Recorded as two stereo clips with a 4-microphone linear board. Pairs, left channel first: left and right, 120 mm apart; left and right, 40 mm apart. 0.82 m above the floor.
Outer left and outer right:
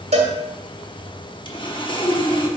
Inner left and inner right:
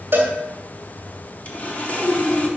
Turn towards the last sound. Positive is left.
turn(degrees=45)  # may be behind; listen again after turning